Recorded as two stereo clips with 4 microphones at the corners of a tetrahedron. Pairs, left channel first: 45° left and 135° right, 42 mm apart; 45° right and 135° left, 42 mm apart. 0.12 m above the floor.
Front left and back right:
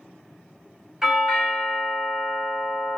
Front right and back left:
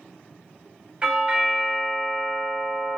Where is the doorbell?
160° left, 1.8 m.